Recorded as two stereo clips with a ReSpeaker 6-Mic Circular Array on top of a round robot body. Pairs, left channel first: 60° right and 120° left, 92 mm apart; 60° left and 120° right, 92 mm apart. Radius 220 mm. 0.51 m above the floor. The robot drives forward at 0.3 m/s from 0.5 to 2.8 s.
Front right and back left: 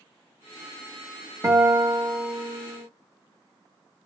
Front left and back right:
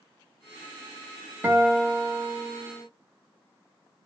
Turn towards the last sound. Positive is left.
turn(degrees=175)